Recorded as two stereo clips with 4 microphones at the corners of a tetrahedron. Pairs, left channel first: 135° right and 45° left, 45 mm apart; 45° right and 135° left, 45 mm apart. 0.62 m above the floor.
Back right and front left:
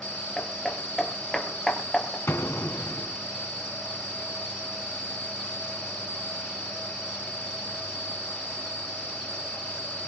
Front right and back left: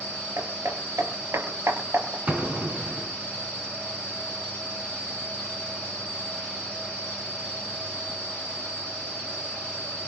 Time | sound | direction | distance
0.4 | hammering | 145° left | 4 m
2.3 | an explosion | 160° right | 4 m